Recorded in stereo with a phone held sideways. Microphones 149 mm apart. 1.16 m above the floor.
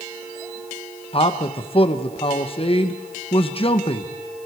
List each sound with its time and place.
1.1 s a man speaking: 40° left (ahead or behind), 1.4 m